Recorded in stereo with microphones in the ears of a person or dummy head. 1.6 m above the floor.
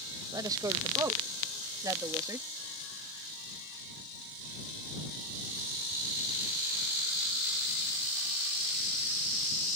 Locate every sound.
0.3 s a woman speaking: 20° right (ahead or behind); by 2.5 s 15° right (ahead or behind)